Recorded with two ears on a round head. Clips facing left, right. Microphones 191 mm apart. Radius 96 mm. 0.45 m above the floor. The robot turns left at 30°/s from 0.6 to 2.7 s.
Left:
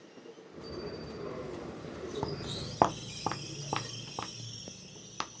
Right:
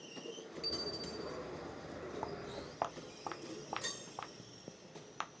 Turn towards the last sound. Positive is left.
turn(degrees=50)  # may be behind; listen again after turning